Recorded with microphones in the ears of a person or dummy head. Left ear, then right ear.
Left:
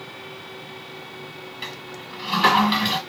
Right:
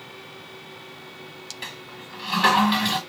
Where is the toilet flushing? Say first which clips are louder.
Left 3 dB; 5° right (ahead or behind), 1.3 m.